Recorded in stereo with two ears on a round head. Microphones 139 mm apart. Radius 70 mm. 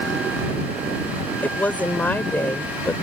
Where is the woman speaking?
10° left (ahead or behind).